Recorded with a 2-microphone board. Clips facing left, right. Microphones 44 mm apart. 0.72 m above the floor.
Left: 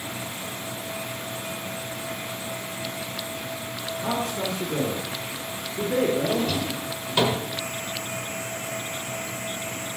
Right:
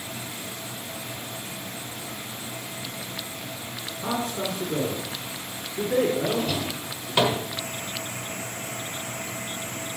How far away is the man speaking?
About 2.0 m.